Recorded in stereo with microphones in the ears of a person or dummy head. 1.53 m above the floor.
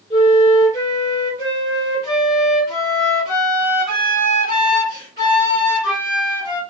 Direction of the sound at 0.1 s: 15° left (ahead or behind).